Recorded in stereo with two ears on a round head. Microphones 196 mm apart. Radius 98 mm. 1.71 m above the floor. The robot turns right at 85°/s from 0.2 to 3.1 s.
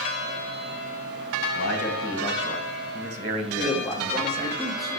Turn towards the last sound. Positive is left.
turn(degrees=0)  # may be behind; listen again after turning